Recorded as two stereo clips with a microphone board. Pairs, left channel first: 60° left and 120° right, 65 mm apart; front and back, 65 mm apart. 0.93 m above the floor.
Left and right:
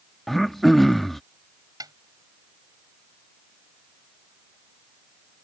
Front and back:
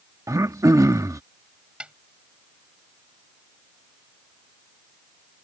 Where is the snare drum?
110° right.